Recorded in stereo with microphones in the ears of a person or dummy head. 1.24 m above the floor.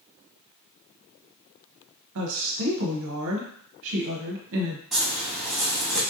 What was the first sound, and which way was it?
A woman speaking, 70° right (ahead or behind).